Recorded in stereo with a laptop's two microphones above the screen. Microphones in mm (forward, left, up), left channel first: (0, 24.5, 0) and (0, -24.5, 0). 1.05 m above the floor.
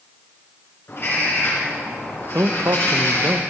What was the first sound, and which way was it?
A bird, 50° left (ahead or behind).